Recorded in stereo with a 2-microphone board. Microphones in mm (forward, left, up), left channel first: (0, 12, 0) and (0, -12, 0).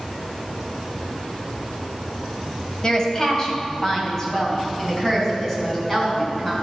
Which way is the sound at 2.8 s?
25° left (ahead or behind).